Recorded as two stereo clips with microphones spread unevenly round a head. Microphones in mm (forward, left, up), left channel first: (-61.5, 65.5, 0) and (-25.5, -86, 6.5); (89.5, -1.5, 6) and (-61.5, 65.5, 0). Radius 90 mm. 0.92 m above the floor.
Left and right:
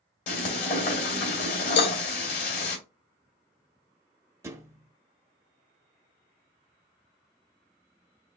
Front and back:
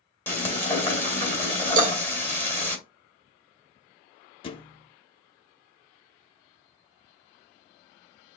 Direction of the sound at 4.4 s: 20° right.